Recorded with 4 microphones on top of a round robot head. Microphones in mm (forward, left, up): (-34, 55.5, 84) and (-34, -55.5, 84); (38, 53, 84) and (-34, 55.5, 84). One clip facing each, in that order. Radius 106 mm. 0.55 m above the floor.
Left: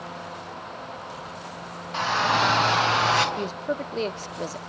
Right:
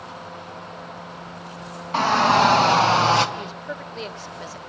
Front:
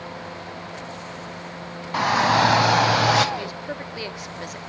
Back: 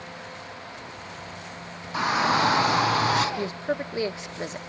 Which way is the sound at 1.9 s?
40° right.